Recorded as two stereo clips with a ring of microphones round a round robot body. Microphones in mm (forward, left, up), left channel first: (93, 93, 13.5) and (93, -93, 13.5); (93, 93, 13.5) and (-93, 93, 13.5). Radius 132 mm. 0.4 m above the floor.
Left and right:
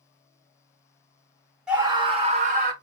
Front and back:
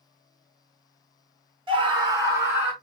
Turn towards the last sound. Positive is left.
turn(degrees=-100)